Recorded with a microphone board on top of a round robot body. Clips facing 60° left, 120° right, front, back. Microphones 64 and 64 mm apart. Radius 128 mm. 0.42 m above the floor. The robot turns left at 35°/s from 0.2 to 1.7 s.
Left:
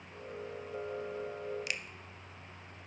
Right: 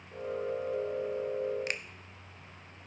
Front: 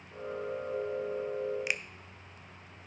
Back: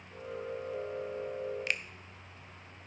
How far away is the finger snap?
About 0.9 m.